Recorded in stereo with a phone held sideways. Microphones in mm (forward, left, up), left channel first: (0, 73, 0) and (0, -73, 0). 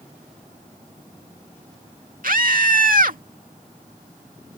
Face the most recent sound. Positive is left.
turn(degrees=-65)  # may be behind; listen again after turning